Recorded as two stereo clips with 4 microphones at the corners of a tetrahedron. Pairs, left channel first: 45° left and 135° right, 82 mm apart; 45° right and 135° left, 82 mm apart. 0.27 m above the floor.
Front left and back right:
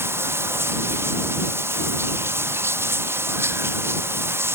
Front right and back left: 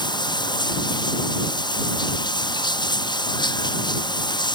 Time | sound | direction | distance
0.0 | running water | 75° right | ?